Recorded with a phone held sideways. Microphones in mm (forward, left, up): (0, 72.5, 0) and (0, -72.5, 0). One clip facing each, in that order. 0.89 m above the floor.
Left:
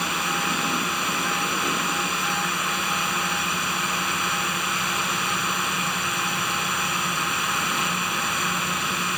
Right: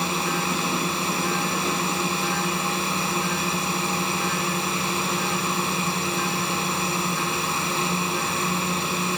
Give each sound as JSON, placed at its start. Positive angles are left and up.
{"t": 0.0, "sound": "a drone", "side_deg": -35}